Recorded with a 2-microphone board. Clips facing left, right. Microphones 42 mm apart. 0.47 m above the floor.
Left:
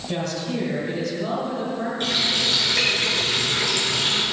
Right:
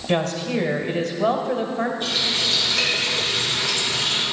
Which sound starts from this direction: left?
A running tap, at 2.0 s.